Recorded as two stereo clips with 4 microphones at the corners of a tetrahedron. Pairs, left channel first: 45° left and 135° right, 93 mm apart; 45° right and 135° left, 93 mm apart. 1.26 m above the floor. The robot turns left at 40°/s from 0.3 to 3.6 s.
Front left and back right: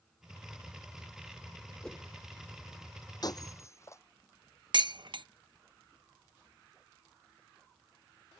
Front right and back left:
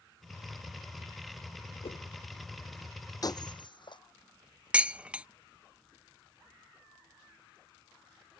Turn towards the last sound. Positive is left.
turn(degrees=-150)